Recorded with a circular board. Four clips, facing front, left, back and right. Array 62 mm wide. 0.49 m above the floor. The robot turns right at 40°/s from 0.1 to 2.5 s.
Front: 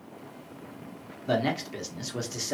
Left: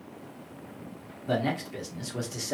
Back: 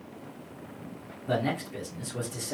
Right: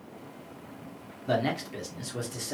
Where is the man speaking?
30° right, 0.9 m; by 2.5 s 20° left, 0.9 m.